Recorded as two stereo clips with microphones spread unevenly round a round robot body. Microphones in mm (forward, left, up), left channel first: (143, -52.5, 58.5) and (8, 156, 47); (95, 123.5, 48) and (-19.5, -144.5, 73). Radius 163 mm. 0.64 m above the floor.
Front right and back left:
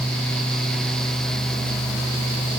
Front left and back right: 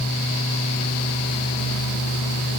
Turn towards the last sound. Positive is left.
No sound to turn to.